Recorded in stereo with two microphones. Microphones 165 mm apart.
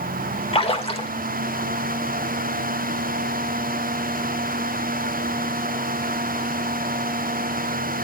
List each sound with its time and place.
0.5 s a splash: 35° left (ahead or behind), 1.6 m